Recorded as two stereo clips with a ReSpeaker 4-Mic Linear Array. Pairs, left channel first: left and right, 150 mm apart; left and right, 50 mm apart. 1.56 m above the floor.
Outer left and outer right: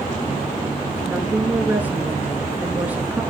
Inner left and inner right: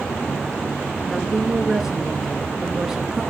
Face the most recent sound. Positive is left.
turn(degrees=-10)  # may be behind; listen again after turning